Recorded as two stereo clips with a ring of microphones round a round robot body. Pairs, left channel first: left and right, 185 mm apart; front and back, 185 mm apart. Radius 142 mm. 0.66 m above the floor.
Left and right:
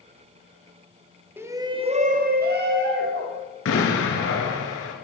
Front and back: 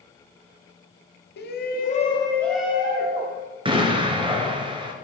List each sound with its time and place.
1.4 s a shout: 10° right, 1.4 m; by 3.4 s 120° right, 1.8 m
3.6 s an explosion: 115° left, 2 m